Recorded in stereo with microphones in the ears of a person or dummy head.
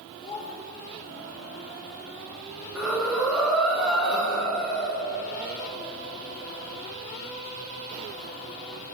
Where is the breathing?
Centre (ahead or behind), 1.7 m.